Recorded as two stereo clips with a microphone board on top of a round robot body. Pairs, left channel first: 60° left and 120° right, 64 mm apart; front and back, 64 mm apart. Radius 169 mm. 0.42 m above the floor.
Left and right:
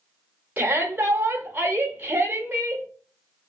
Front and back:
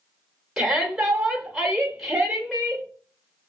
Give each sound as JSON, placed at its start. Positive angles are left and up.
{"t": 0.6, "sound": "a shout", "azimuth_deg": -105, "distance_m": 1.3}